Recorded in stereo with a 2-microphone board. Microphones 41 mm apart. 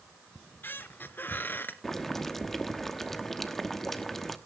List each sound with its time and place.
0.3 s a squeak: 55° left (ahead or behind), 1.0 m
1.8 s boiling: 10° left (ahead or behind), 1.0 m